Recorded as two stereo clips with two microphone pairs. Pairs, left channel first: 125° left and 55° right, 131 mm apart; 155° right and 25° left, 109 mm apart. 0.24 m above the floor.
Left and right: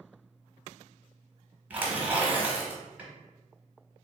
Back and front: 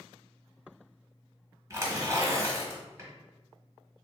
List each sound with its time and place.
1.7 s tearing paper: 10° left, 1.2 m